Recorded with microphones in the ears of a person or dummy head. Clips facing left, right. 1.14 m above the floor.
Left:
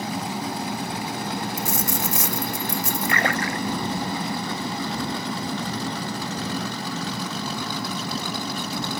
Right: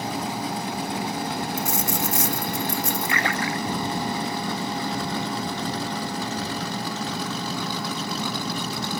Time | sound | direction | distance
1.6 | a dropped coin | 55° left (ahead or behind) | ?
3.1 | a splash | 45° left (ahead or behind) | ?